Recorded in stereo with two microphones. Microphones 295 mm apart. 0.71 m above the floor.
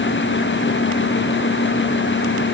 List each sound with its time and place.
Only background noise.